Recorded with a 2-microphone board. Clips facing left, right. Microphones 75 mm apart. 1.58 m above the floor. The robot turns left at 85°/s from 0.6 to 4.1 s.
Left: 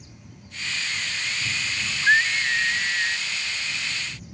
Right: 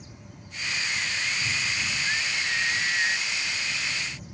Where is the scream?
100° left; by 3.3 s 20° right.